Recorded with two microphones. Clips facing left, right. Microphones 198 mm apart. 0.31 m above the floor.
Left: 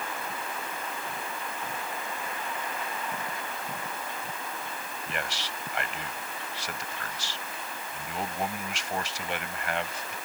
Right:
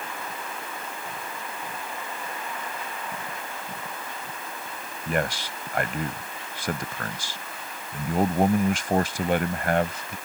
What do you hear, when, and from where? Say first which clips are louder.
5.1 s a man speaking: right 10 dB; 50° right (ahead or behind)